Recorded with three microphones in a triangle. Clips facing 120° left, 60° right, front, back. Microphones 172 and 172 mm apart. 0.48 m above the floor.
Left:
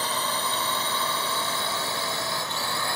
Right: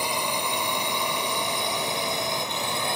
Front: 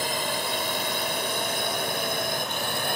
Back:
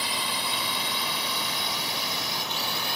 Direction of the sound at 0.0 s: 10° left.